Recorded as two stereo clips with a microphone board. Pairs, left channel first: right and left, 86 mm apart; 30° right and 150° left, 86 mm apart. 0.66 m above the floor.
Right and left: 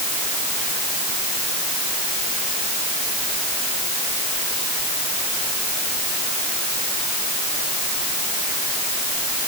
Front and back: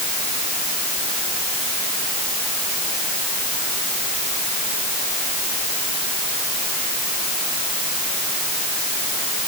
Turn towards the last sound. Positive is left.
No sound to turn to.